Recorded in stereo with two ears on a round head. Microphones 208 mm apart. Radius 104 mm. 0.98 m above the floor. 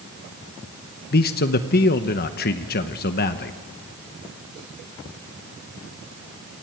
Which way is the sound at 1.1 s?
40° left (ahead or behind).